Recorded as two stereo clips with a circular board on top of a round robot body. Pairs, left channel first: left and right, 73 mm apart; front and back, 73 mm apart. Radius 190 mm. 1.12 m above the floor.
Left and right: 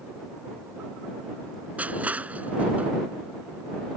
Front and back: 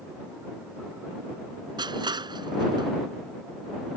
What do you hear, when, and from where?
1.8 s crushing: 160° right